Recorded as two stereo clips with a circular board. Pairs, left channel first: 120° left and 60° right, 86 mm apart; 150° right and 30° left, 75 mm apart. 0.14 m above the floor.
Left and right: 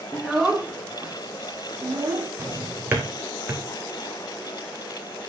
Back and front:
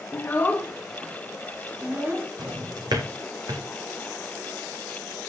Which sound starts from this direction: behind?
A child speaking, at 0.1 s.